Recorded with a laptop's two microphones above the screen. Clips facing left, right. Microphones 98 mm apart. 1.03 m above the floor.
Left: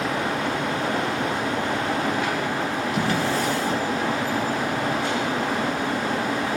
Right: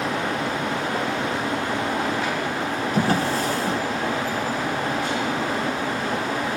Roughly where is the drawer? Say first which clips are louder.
Right 3 dB; right.